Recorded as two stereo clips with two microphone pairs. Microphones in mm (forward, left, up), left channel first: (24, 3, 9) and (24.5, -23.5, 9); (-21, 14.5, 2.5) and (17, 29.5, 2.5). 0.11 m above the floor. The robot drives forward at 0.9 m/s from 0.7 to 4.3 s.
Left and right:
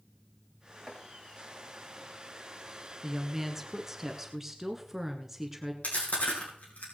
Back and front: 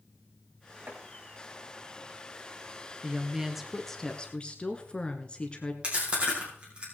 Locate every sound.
0.9 s chopping: 15° left, 4.5 m
3.0 s a woman speaking: 20° right, 1.3 m; by 5.7 s 155° right, 1.2 m
5.8 s chewing: 90° left, 5 m